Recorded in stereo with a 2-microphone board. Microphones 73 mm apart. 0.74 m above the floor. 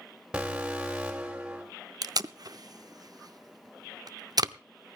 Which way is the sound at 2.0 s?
65° right (ahead or behind).